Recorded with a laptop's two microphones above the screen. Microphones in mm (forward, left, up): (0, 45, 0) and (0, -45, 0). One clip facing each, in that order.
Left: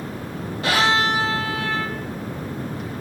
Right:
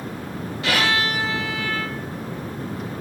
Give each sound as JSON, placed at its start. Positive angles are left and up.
{"t": 0.6, "sound": "a violin", "side_deg": 35, "distance_m": 1.9}